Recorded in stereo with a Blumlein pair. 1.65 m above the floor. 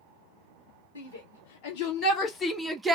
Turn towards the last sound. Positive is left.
turn(degrees=-20)